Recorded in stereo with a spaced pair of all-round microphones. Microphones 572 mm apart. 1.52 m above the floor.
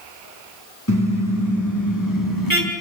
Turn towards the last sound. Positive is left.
turn(degrees=40)  # may be behind; listen again after turning